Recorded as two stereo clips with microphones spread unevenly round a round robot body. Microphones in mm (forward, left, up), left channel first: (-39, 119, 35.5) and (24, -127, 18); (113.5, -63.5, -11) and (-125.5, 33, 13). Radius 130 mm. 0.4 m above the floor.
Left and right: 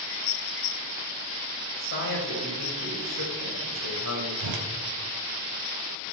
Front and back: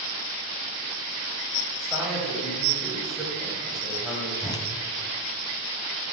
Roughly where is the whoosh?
Right.